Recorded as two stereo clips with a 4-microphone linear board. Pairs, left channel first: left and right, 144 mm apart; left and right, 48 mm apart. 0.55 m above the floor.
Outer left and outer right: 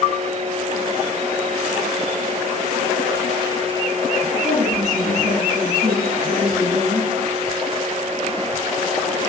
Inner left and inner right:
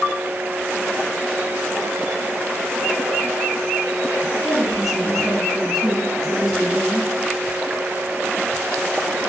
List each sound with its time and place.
4.4 s a woman speaking: 5° right (ahead or behind), 6.5 m